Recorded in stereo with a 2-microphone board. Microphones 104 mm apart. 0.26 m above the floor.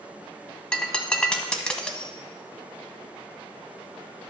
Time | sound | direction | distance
0.7 | breaking glass | 10° left (ahead or behind) | 0.8 m